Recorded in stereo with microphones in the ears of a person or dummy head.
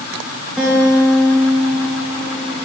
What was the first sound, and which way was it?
A guitar, 5° left (ahead or behind).